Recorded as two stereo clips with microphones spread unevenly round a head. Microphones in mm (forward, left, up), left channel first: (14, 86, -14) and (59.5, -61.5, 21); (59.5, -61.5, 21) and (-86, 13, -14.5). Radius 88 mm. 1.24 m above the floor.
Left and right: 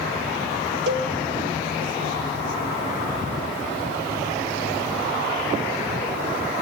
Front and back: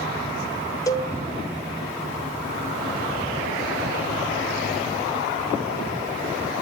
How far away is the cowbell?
About 0.9 m.